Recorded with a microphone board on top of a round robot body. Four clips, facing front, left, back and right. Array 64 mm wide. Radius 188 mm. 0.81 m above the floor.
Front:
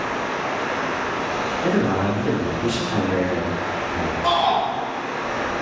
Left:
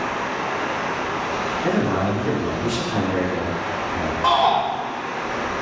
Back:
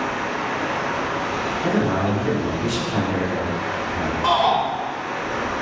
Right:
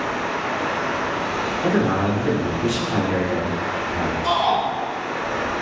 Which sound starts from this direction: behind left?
A shout, at 4.2 s.